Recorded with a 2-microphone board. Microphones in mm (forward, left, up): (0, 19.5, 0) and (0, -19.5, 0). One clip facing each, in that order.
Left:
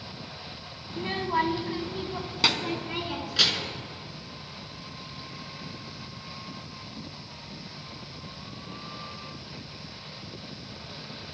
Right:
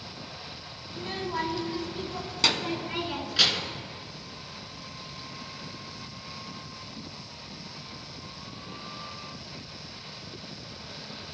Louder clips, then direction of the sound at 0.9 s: Left 5 dB; 35° left (ahead or behind).